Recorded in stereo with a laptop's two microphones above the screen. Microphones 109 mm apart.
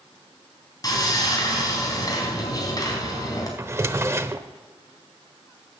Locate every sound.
0.8 s sawing: 35° left (ahead or behind), 4 m
3.6 s a drawer: 25° right (ahead or behind), 0.7 m